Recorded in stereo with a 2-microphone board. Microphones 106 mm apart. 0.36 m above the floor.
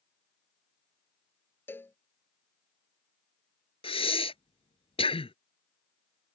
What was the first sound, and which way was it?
A cowbell, 20° left (ahead or behind).